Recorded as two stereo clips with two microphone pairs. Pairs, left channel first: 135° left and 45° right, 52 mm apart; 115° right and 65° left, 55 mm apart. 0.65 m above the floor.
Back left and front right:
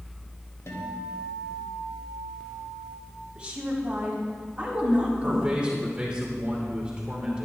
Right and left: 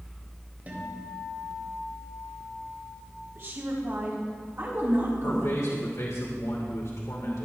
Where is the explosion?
No explosion in this recording.